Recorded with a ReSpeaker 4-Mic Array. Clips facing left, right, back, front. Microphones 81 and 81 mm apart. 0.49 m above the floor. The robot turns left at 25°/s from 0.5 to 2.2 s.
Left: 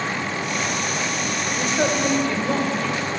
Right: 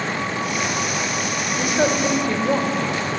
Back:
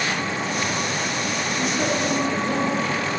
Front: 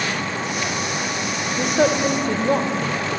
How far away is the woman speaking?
About 1.3 m.